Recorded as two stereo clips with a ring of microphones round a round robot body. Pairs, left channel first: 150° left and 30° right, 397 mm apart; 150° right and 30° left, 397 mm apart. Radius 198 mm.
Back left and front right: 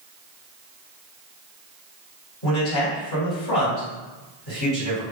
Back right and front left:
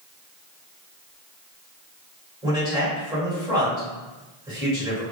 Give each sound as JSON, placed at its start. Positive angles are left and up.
{"t": 2.4, "sound": "a man speaking", "azimuth_deg": 110, "distance_m": 1.8}